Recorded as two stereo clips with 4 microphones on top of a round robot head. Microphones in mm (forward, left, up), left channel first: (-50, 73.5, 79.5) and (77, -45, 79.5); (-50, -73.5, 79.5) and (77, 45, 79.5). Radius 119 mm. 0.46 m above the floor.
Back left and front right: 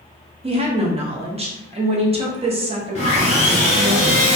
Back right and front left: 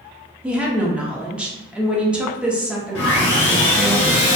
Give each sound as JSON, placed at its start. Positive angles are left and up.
{"t": 0.4, "sound": "a woman speaking", "azimuth_deg": -35, "distance_m": 0.8}
{"t": 3.0, "sound": "sawing", "azimuth_deg": -165, "distance_m": 1.1}